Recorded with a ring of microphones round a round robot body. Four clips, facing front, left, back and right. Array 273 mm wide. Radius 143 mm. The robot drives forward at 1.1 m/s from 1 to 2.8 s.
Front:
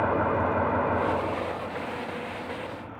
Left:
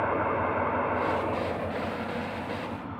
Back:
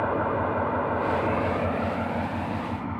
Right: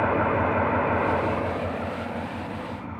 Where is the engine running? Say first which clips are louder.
Right 4 dB, front 1 dB; 85° right, 0.7 m; by 3.0 s 170° right, 2 m.